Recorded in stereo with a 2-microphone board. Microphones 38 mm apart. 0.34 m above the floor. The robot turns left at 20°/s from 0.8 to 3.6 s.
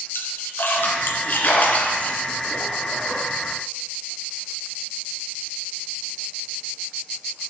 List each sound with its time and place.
0.1 s a splash: 65° left (ahead or behind), 2.0 m; by 3.2 s 20° left (ahead or behind), 2.0 m